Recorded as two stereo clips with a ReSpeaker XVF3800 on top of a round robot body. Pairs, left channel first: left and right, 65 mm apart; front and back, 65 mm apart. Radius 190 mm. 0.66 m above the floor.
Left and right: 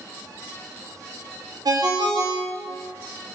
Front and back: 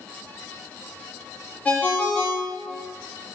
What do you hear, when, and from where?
1.6 s a ringtone: 70° right, 0.7 m